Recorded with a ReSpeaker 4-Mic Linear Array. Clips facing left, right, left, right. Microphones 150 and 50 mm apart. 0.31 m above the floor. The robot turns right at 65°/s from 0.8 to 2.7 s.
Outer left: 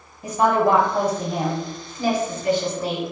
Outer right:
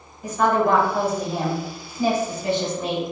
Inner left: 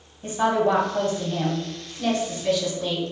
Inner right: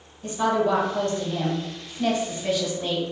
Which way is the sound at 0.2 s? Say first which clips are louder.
Outer left 1 dB, inner left 1 dB; 20° left (ahead or behind).